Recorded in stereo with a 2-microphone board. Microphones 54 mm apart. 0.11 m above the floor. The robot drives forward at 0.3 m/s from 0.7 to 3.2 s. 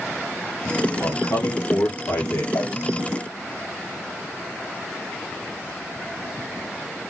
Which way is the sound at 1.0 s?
60° left (ahead or behind).